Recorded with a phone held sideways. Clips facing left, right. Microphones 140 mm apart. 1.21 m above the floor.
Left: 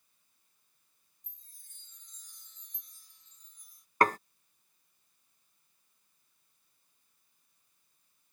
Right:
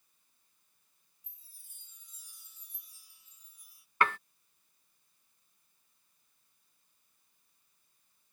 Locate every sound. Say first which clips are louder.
1.2 s a chime: left 1 dB; 10° right (ahead or behind)
4.0 s dishes clattering: left 4 dB; 40° left (ahead or behind)